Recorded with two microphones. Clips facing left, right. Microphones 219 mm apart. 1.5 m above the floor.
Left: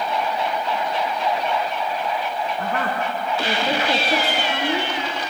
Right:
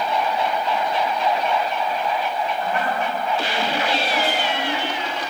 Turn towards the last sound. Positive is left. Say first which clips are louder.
# left 1 dB
turn(degrees=75)  # may be behind; listen again after turning